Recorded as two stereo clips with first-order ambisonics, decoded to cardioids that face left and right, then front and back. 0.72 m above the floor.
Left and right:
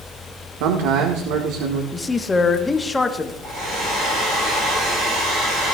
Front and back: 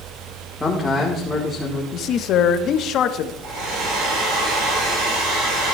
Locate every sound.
0.6 s a man speaking: 85° right, 1.6 m
1.9 s a man speaking: 15° left, 1.0 m
3.4 s a hair dryer: 145° right, 8 m